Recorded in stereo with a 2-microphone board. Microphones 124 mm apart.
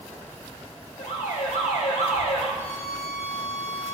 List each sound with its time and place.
1.0 s an alarm: 85° left, 5 m
2.6 s a violin: 75° left (ahead or behind), 2.5 m